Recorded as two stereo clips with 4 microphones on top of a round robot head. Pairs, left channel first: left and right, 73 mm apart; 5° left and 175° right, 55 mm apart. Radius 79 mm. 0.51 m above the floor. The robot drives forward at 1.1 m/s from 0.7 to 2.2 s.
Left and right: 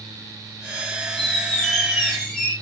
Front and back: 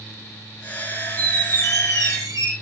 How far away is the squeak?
About 1.0 m.